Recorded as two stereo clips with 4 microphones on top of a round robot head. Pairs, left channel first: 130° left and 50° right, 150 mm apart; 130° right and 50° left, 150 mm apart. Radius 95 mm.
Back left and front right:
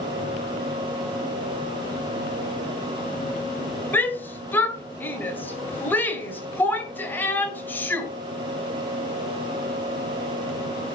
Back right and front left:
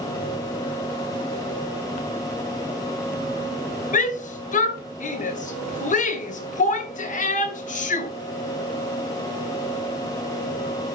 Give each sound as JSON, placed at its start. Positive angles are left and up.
{"t": 3.9, "sound": "a shout", "azimuth_deg": -155, "distance_m": 2.0}